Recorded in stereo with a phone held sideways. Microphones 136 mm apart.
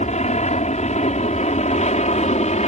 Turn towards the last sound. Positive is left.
turn(degrees=55)  # may be behind; listen again after turning